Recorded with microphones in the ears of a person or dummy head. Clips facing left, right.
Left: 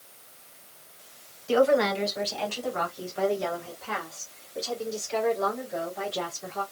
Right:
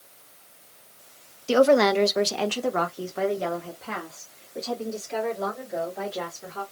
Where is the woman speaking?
60° right (ahead or behind), 0.7 m; by 6.6 s 15° right (ahead or behind), 2.5 m.